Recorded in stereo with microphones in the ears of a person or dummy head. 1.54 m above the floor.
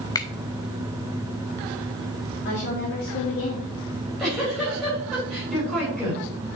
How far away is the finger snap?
About 0.6 m.